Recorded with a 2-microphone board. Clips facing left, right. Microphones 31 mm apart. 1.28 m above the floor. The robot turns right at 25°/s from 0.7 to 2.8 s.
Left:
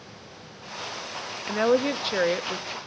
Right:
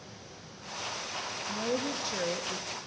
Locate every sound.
1.5 s a woman speaking: 115° left, 0.5 m; by 2.8 s 145° left, 0.5 m